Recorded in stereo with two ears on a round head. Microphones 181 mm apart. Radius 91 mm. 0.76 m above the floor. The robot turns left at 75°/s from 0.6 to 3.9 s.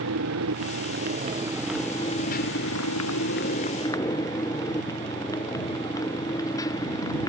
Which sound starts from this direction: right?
A motorcycle, at 0.0 s.